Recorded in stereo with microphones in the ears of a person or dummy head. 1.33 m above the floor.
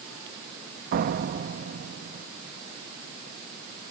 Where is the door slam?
50° right (ahead or behind).